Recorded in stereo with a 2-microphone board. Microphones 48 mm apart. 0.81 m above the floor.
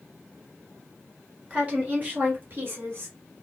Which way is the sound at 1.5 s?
25° right (ahead or behind).